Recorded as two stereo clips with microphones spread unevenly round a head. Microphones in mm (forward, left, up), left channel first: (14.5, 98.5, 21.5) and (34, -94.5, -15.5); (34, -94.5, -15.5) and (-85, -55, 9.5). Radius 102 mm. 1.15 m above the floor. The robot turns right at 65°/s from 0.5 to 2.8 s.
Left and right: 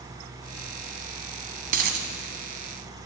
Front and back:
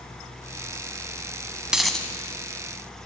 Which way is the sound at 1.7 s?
135° right.